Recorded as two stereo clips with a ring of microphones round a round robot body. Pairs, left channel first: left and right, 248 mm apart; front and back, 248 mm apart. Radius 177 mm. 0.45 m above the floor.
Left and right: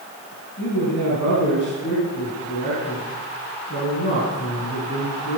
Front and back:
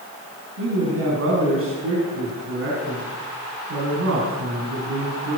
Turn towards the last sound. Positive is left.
turn(degrees=150)